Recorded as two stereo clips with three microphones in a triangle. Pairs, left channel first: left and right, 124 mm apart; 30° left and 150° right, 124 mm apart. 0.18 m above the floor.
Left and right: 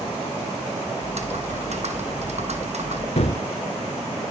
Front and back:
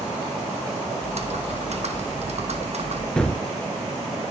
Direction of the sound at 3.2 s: 115° left.